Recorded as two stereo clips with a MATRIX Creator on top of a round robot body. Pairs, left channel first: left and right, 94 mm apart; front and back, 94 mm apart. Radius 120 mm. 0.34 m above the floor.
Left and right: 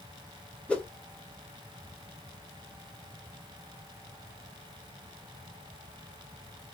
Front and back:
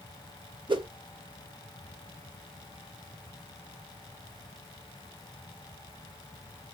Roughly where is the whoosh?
Behind.